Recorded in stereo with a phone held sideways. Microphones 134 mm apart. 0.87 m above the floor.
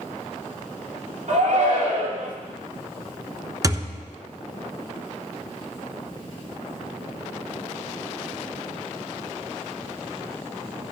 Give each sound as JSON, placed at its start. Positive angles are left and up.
{"t": 1.3, "sound": "a shout", "side_deg": -65, "distance_m": 2.5}
{"t": 3.6, "sound": "a thud", "side_deg": -25, "distance_m": 1.1}